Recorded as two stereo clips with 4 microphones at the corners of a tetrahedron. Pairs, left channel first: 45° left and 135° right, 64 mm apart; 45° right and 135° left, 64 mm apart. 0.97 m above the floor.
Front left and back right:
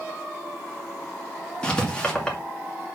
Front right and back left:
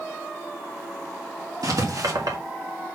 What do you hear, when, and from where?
1.6 s writing: 120° left, 2 m